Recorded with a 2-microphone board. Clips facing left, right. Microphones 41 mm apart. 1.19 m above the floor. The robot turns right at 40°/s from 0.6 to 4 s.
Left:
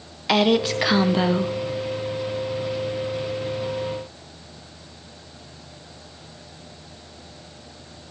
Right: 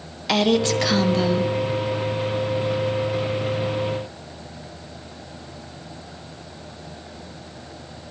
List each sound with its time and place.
0.3 s a woman speaking: 10° left, 0.6 m; by 1.5 s 50° left, 0.6 m